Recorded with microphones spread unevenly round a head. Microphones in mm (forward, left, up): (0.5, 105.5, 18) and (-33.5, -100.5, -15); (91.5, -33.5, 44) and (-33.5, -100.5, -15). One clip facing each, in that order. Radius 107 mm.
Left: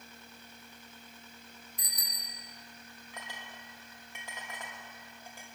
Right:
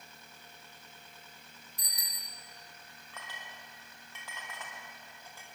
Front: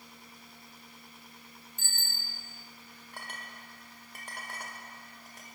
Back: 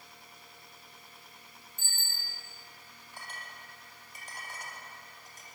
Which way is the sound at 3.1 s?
5° left.